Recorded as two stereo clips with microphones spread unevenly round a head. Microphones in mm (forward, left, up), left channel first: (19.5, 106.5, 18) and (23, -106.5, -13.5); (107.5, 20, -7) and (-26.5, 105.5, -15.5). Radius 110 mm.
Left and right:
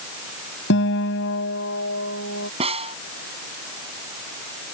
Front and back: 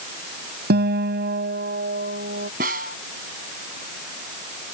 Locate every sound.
0.7 s a guitar: 130° left
2.6 s a snare drum: 155° right